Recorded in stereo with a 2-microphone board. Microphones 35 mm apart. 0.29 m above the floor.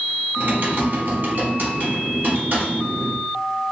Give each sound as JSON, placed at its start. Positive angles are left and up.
{"t": 0.4, "sound": "typing on a keyboard", "side_deg": -60, "distance_m": 0.9}